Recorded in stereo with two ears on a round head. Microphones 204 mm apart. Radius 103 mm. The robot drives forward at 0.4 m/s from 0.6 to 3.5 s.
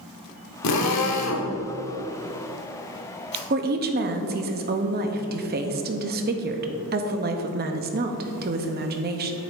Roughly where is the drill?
Left.